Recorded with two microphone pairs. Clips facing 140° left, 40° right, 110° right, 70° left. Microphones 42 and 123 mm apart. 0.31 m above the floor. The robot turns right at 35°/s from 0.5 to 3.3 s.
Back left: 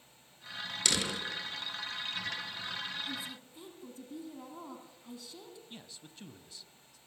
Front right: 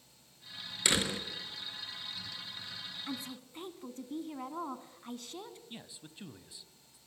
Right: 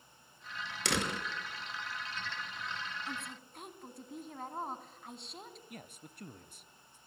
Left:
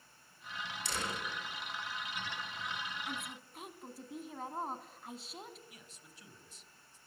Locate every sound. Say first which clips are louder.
0.8 s a door slam: front right 2 dB, right 6 dB; 105° right, 3.5 m; by 1.2 s 95° right, 3.5 m
3.1 s a woman speaking: even, even; 25° right, 2.5 m; by 5.6 s 15° right, 2.5 m
5.7 s a man speaking: front right 2 dB, right 8 dB; 105° right, 1.5 m